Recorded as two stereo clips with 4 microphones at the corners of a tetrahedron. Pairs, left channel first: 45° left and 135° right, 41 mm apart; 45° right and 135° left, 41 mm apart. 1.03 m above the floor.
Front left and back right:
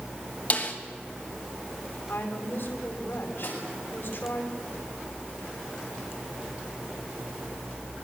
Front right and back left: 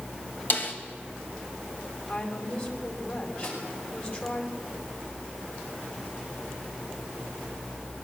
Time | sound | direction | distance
0.5 | a snare drum | 5° right | 3 m
2.1 | a woman speaking | 10° left | 5 m
3.4 | a snare drum | straight ahead | 9 m